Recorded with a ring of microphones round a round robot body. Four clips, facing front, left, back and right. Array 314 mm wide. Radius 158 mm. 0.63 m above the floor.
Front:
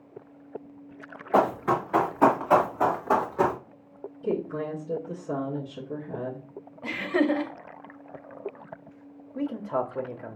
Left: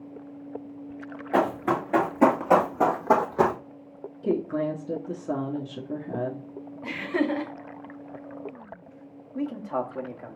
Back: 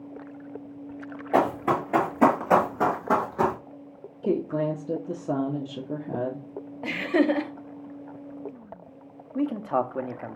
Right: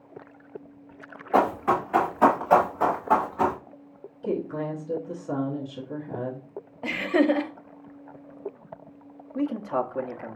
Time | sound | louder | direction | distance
1.3 | running footsteps | right 2 dB, even | 150° left | 2.5 m
4.2 | a woman speaking | left 3 dB, back 4 dB | 150° left | 1.0 m
6.8 | laughter | right 5 dB, back 2 dB | 135° right | 0.9 m
9.3 | a man speaking | right 3 dB, back 3 dB | 170° right | 0.7 m